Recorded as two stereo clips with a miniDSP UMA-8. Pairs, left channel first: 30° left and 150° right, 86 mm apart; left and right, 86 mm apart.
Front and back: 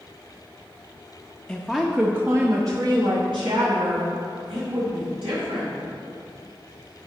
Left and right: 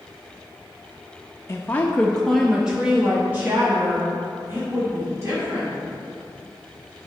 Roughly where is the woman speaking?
Left.